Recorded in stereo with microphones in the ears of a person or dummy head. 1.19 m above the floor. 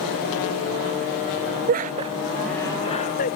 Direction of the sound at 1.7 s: 50° right (ahead or behind).